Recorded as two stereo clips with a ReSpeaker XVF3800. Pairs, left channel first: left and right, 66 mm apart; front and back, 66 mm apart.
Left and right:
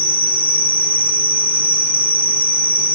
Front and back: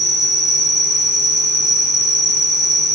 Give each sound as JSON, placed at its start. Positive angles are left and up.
{"t": 0.0, "sound": "an insect", "azimuth_deg": -25, "distance_m": 1.8}